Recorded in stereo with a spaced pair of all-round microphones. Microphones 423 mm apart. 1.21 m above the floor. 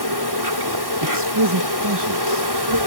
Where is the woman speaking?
65° right (ahead or behind).